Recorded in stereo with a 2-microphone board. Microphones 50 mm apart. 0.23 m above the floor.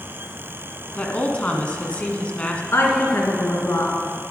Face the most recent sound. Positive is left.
turn(degrees=60)  # may be behind; listen again after turning